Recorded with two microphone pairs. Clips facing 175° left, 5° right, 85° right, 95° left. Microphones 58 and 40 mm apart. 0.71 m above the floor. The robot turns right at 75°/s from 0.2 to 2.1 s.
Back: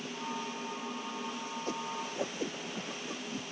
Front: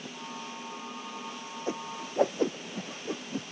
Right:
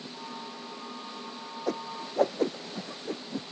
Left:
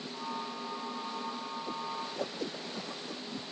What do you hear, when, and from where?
1.7 s a whoosh: 75° right; by 3.4 s 40° right